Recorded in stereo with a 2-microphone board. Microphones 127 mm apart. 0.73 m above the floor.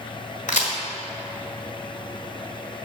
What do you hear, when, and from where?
0.5 s a crack: 85° left, 1.5 m